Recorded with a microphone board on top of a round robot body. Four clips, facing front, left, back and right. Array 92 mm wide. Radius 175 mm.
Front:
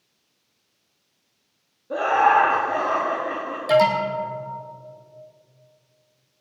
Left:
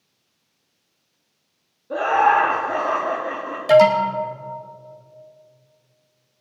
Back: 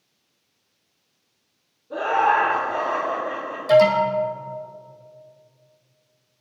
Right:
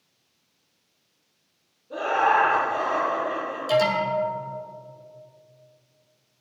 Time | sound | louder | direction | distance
1.9 | laughter | left 5 dB, front 2 dB | 50° left | 2.5 m
3.7 | an alarm | left 9 dB, back 3 dB | 80° left | 2.5 m